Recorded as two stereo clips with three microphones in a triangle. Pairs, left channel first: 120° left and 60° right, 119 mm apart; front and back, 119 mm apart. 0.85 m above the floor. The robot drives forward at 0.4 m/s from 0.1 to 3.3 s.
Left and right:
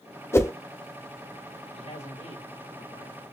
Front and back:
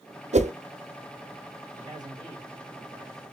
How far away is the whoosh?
About 0.5 m.